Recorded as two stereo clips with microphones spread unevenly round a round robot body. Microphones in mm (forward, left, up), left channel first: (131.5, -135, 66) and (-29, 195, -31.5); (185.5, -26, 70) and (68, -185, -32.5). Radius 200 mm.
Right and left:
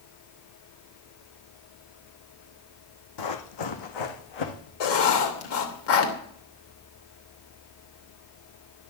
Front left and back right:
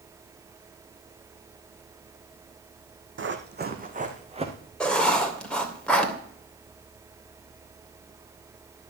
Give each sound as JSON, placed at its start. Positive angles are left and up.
{"t": 3.2, "sound": "running footsteps", "azimuth_deg": -90, "distance_m": 2.0}
{"t": 4.8, "sound": "writing", "azimuth_deg": -45, "distance_m": 3.0}